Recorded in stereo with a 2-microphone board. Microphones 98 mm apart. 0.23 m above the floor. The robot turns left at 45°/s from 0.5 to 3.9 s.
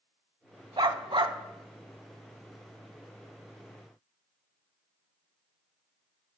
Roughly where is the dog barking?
Right.